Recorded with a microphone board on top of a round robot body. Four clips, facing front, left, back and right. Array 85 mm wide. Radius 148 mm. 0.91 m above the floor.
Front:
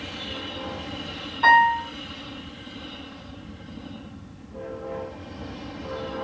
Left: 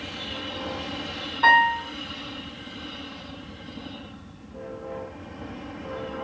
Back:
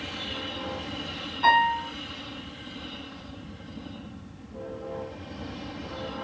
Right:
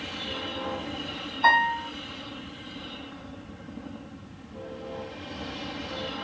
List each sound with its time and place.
1.4 s a piano: 60° left, 2.5 m